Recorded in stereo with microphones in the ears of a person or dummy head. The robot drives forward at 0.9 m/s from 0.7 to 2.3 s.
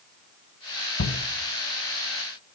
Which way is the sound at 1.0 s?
65° left (ahead or behind).